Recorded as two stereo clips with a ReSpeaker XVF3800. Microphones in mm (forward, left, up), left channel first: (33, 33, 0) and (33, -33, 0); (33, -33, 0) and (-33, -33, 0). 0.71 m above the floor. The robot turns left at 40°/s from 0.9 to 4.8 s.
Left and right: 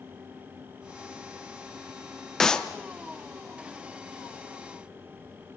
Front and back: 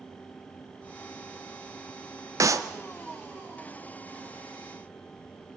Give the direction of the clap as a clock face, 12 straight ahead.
6 o'clock.